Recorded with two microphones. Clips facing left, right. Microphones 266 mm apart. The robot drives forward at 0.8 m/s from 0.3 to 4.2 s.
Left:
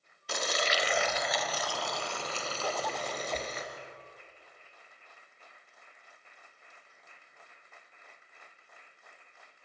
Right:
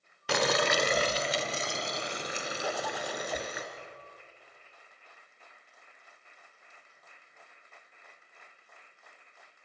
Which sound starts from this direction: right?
Boiling, at 0.3 s.